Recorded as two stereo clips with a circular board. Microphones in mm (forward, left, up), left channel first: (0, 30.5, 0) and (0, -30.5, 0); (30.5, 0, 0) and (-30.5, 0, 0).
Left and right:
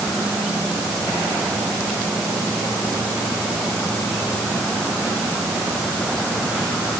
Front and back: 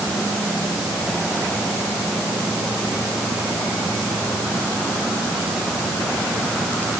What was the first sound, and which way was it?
Only background noise.